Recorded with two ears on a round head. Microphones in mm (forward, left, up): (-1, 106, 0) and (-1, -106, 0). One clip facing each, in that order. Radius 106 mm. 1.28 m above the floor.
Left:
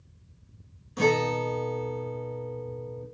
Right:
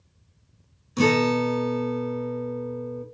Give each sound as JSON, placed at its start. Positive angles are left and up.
{"t": 1.0, "sound": "a guitar", "side_deg": -40, "distance_m": 1.2}